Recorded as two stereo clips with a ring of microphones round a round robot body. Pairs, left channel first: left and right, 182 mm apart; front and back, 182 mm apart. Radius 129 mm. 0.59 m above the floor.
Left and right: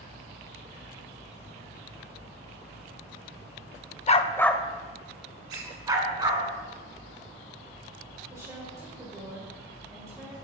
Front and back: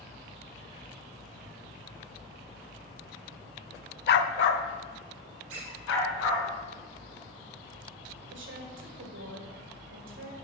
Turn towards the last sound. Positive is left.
turn(degrees=-170)